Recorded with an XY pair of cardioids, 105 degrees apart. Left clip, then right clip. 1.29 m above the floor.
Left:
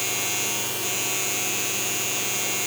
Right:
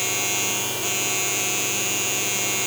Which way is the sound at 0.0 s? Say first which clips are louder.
Right 2 dB; 25° right.